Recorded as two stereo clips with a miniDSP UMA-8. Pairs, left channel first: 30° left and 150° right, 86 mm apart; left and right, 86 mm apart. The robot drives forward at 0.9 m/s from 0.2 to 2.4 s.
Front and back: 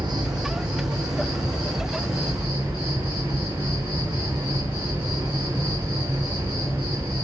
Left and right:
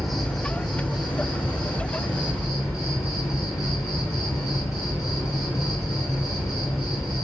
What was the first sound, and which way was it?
An insect, straight behind.